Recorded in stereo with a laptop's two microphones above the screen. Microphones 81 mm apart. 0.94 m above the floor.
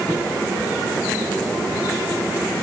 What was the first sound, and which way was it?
Only background noise.